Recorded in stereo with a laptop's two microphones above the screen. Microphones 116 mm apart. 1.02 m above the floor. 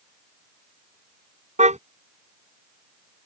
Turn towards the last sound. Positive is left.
turn(degrees=-80)